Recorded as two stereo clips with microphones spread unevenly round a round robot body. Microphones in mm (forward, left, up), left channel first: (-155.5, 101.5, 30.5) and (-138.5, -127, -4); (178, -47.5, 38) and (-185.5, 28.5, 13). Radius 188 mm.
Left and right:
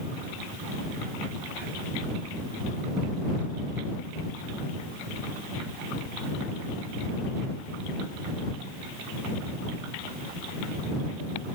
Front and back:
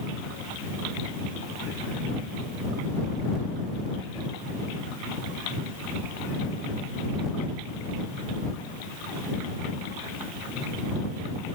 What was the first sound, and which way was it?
Only background noise.